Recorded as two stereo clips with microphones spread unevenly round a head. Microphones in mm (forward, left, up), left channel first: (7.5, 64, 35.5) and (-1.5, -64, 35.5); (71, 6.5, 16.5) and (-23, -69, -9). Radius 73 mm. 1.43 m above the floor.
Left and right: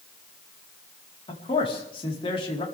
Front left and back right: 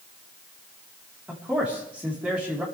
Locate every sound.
1.3 s a man speaking: 135° left, 4 m